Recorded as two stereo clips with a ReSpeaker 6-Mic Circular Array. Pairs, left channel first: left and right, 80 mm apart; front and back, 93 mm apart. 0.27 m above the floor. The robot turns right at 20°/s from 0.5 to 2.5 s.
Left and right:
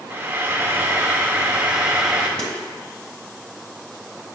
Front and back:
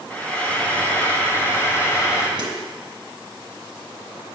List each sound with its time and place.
0.1 s frying: 55° right, 1.5 m; by 2.3 s 20° right, 1.5 m
2.4 s a snare drum: 165° left, 1.5 m